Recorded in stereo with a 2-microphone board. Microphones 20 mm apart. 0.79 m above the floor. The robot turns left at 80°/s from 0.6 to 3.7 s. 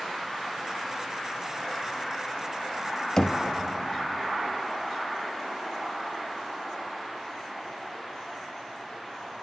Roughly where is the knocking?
Left.